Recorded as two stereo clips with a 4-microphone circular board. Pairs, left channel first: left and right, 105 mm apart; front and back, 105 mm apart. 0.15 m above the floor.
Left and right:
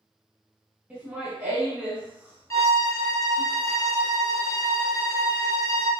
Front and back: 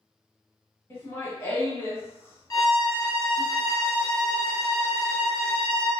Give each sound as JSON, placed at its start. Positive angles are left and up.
{"t": 0.9, "sound": "laughter", "azimuth_deg": -30, "distance_m": 1.1}
{"t": 2.5, "sound": "a violin", "azimuth_deg": 40, "distance_m": 1.0}